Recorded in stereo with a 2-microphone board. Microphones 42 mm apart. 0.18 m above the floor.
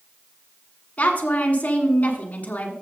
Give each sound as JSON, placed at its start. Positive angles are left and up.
{"t": 1.0, "sound": "a woman speaking", "side_deg": 40, "distance_m": 1.8}